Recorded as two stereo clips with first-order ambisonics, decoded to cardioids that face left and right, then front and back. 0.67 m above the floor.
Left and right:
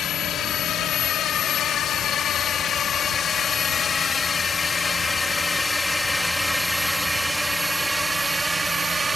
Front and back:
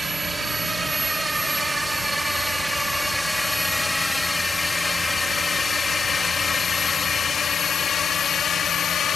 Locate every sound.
0.0 s a drone: 110° left; by 9.2 s 25° right